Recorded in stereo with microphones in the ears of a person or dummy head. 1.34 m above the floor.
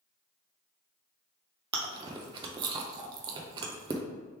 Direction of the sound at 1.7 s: 25° right (ahead or behind).